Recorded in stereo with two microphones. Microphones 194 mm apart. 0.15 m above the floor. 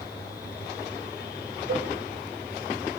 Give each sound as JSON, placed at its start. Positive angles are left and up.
{"t": 1.7, "sound": "a cowbell", "side_deg": -75, "distance_m": 3.0}